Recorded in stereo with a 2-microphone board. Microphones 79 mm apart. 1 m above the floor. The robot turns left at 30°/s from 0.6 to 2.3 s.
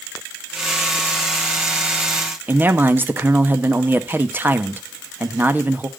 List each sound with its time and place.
2.5 s a man speaking: 25° right (ahead or behind), 1.1 m